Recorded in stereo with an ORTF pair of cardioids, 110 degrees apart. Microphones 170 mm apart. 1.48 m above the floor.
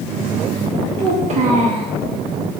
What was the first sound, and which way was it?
A child speaking, 45° right.